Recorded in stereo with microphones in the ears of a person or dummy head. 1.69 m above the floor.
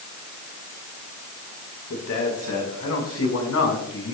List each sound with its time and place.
1.9 s a man speaking: 75° left (ahead or behind), 5 m; by 4.2 s 70° left (ahead or behind), 6.5 m